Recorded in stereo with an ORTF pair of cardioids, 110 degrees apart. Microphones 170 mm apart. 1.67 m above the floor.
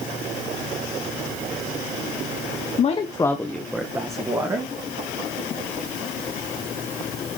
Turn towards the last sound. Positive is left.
turn(degrees=-25)